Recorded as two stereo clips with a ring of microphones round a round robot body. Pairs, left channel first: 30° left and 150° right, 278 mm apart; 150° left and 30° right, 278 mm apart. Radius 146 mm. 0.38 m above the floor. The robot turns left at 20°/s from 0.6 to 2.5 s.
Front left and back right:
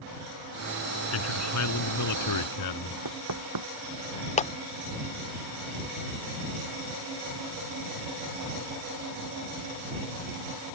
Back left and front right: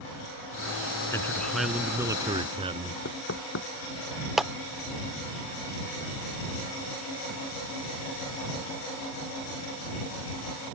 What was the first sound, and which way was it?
A man speaking, 70° left.